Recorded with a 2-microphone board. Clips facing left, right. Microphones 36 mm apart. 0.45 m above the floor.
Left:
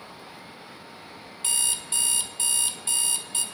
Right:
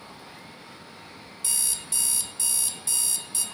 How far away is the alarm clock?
About 0.5 m.